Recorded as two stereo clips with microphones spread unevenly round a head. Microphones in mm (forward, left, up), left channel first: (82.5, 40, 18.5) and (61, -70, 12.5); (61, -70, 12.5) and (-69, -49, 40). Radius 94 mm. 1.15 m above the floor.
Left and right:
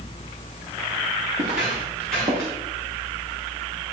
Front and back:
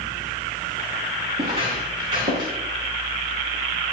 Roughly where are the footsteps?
Behind.